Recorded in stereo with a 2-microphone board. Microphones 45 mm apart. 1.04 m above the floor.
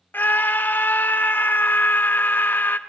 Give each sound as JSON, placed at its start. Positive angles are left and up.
{"t": 0.1, "sound": "a scream", "side_deg": 45, "distance_m": 1.0}